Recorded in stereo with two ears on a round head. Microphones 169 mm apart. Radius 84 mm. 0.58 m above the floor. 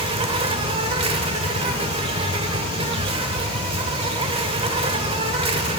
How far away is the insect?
About 0.9 m.